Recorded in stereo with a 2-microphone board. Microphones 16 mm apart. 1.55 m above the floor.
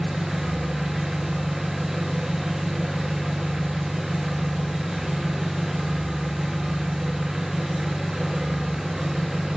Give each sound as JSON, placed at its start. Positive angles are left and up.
{"t": 0.0, "sound": "an engine running", "side_deg": -30, "distance_m": 2.5}